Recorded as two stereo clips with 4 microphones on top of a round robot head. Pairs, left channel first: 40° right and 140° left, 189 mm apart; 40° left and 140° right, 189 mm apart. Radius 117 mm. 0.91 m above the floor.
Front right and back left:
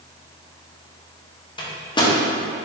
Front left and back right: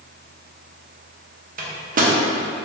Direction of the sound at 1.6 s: 105° right.